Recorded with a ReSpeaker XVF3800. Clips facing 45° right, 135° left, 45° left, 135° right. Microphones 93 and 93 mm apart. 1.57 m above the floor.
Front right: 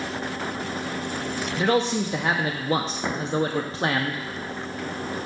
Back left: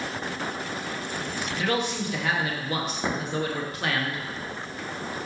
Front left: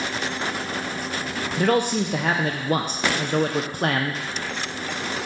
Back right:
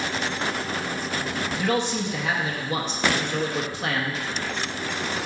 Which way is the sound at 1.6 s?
10° left.